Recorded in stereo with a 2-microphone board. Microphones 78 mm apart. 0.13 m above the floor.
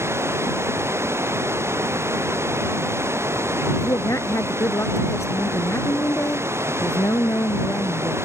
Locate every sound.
0.0 s running water: 35° right (ahead or behind)
3.8 s a woman speaking: 40° left (ahead or behind)